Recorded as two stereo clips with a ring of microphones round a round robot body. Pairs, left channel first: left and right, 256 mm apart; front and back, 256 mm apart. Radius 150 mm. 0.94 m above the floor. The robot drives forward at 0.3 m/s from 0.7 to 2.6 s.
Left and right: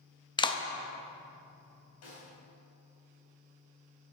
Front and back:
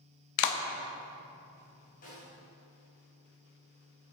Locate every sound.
0.4 s a clap: 15° left, 0.7 m
2.0 s a snare drum: 60° left, 3 m; by 2.3 s 65° left, 3 m